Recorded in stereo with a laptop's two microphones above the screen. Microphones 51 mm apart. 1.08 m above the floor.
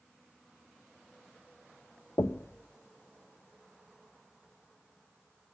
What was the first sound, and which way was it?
Knocking, 65° left (ahead or behind).